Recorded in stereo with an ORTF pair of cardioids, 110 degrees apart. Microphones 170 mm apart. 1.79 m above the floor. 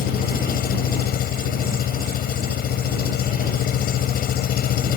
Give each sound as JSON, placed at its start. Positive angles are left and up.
{"t": 0.0, "sound": "an engine running", "azimuth_deg": 60}